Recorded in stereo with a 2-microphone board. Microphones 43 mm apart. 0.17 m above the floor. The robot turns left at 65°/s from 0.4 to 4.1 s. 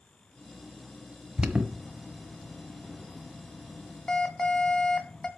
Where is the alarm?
20° right (ahead or behind), 1.3 m; by 5.3 s 20° left (ahead or behind), 1.3 m.